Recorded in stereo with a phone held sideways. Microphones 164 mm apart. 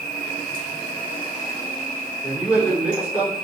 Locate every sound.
0.0 s an insect: 30° left (ahead or behind), 2 m
2.2 s a man speaking: 10° right (ahead or behind), 2.5 m